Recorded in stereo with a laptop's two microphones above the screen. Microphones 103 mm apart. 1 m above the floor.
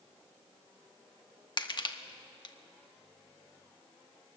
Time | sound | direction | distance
1.6 | crushing | 45° left (ahead or behind) | 1.4 m